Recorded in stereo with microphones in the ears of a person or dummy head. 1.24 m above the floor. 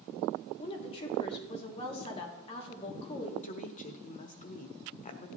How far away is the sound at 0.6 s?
About 3 m.